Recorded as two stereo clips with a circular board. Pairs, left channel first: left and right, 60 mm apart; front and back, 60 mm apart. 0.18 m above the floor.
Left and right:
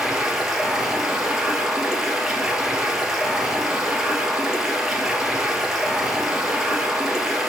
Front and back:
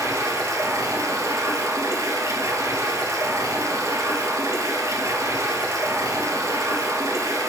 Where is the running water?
170° right, 1.5 m.